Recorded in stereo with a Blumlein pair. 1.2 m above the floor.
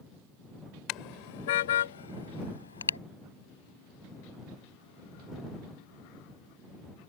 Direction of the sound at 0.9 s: 35° left.